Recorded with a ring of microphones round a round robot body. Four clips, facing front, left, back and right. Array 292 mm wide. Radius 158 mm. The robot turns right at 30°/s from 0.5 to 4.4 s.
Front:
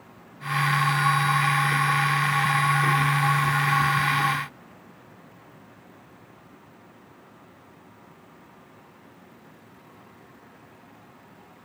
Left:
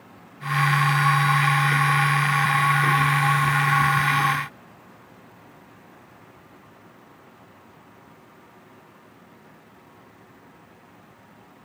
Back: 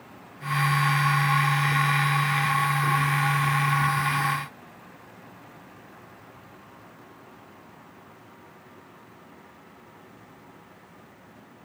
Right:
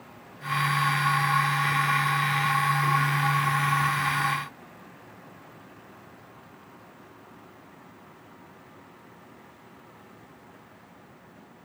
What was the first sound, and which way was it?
Only background noise.